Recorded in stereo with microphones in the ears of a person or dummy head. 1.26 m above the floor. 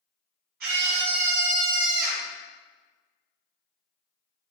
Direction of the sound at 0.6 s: 60° right (ahead or behind).